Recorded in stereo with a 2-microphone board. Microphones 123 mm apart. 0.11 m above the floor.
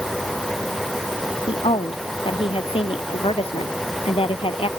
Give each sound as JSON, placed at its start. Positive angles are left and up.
{"t": 1.5, "sound": "a woman speaking", "side_deg": 50}